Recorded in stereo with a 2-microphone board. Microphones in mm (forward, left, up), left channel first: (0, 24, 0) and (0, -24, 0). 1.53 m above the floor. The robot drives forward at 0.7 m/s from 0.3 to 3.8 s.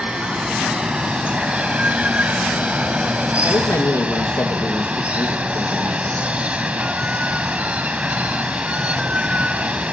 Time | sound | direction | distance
0.0 | running water | 20° right (ahead or behind) | 2 m
3.4 | a man speaking | 85° left | 2.5 m